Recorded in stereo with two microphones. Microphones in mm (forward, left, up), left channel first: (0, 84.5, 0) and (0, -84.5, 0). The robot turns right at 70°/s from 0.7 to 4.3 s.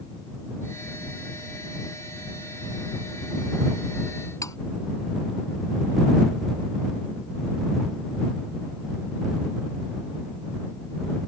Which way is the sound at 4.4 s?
20° left (ahead or behind).